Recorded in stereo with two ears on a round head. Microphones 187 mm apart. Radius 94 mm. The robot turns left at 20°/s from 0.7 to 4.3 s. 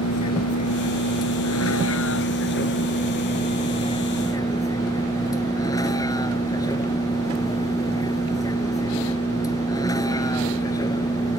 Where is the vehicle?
90° left; by 11.4 s 15° left.